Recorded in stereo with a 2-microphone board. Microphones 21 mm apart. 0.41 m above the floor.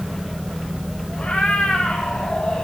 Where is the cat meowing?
80° left, 7.5 m.